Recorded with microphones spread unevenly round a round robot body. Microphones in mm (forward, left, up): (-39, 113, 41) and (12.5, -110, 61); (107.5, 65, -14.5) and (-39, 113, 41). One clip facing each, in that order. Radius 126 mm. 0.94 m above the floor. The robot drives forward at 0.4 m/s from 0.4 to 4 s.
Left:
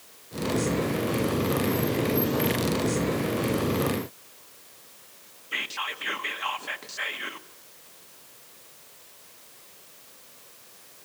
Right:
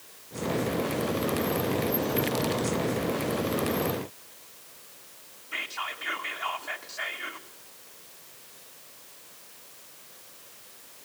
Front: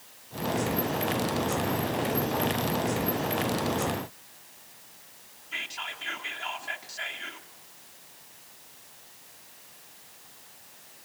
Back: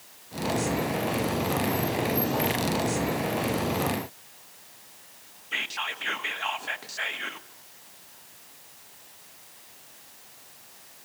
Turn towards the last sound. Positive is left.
turn(degrees=135)